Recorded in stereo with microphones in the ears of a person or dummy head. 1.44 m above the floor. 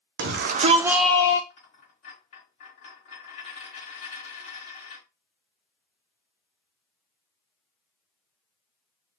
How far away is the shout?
About 0.8 m.